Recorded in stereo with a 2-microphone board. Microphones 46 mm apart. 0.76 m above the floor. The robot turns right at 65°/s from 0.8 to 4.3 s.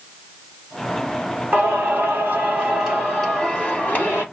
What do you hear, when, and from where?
1.5 s singing: 110° right, 1.8 m; by 4.2 s 65° left, 1.8 m